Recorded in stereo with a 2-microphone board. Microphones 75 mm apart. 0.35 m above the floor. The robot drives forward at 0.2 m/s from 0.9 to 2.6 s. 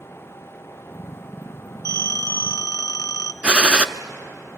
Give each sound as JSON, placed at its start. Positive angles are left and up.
{"t": 1.9, "sound": "a phone ringing", "side_deg": 50, "distance_m": 0.7}
{"t": 3.4, "sound": "a gunshot", "side_deg": -15, "distance_m": 0.7}